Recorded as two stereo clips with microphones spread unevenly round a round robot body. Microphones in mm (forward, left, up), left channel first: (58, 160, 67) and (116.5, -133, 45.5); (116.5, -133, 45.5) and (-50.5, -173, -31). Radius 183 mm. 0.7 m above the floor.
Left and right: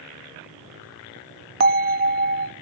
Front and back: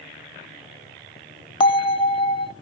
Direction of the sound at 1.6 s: 70° right.